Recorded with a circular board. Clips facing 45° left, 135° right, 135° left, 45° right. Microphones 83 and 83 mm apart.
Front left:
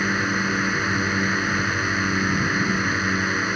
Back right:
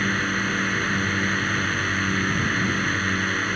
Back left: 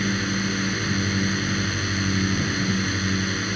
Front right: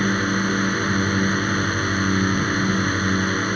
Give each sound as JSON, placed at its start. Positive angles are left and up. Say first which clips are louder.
{"t": 0.0, "sound": "a drone", "louder": "front left 1 dB, front right 4 dB", "azimuth_deg": -30}